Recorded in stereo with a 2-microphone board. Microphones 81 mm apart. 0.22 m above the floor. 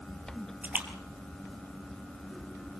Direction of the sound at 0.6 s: 20° right (ahead or behind).